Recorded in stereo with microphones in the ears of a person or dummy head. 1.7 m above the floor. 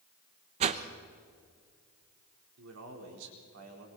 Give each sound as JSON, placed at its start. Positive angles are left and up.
{"t": 0.6, "sound": "a whoosh", "side_deg": -35, "distance_m": 1.0}
{"t": 2.6, "sound": "a man speaking", "side_deg": -80, "distance_m": 4.5}